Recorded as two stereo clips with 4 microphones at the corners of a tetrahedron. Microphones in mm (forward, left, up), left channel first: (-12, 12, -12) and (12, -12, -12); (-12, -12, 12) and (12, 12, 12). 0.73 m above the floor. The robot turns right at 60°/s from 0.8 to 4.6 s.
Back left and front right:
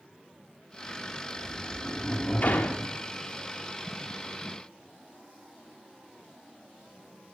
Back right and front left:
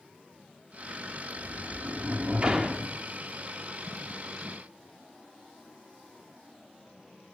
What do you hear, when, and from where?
1.4 s a sliding door: 35° left, 1.2 m; by 2.9 s 130° left, 1.2 m